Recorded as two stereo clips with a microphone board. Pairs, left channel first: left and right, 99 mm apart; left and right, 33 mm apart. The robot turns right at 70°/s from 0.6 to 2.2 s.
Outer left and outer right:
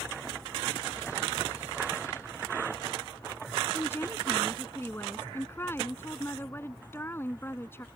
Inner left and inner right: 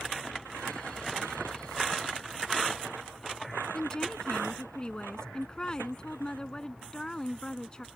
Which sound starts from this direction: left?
A woman speaking, at 3.7 s.